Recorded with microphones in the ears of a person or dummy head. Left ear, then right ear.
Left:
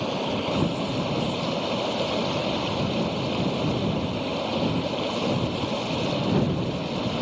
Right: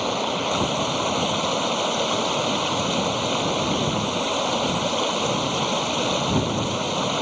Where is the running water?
55° right (ahead or behind).